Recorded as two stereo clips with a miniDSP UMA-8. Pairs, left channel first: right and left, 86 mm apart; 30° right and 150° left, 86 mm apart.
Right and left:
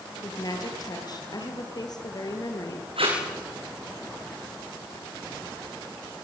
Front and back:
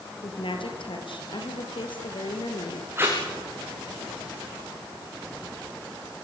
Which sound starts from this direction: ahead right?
A woman speaking, at 0.2 s.